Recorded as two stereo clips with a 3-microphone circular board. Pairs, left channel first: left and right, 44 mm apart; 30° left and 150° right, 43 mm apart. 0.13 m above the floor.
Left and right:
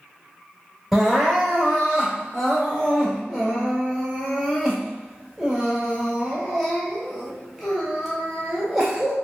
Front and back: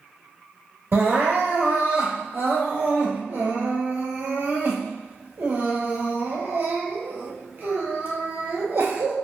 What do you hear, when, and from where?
0.9 s crying: 175° right, 1.5 m